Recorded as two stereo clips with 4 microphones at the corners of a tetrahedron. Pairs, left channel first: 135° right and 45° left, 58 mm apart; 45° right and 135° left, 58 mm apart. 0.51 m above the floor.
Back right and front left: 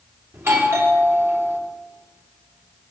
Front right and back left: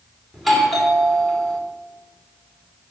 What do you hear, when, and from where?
0.3 s a doorbell: 45° left, 1.8 m